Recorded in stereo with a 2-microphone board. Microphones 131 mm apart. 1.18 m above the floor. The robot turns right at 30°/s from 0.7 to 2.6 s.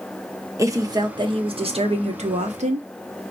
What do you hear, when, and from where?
0.6 s a woman speaking: 150° right, 0.9 m; by 2.9 s 95° right, 0.9 m